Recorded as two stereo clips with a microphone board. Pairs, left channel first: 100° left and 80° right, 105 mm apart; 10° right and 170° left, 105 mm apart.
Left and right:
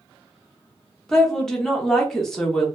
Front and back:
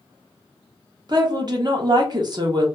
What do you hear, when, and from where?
1.1 s a woman speaking: 175° right, 0.6 m